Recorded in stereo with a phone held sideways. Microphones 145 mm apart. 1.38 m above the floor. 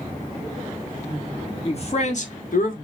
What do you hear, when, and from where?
1.6 s a man speaking: 45° left (ahead or behind), 1.4 m; by 2.8 s 70° left (ahead or behind), 1.3 m